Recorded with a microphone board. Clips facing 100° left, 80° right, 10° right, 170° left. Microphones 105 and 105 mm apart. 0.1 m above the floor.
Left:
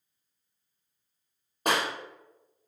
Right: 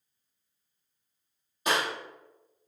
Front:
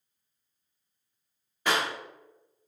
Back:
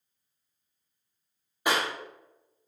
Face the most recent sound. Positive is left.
turn(degrees=95)